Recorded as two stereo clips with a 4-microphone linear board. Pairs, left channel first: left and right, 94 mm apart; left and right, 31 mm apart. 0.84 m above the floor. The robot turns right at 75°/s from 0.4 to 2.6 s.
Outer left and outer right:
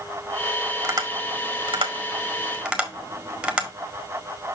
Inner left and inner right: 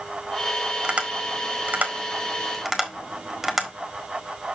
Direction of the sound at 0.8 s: 40° right (ahead or behind).